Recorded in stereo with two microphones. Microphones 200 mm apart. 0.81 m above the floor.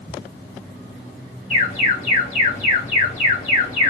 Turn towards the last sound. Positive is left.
turn(degrees=35)  # may be behind; listen again after turning